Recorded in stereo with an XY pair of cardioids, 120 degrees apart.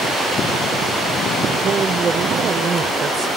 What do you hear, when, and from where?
1.6 s a woman speaking: 35° right; by 3.3 s 40° right